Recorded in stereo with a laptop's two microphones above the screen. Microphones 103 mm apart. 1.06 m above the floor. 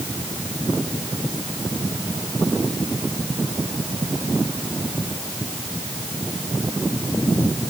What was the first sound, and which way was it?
Only background noise.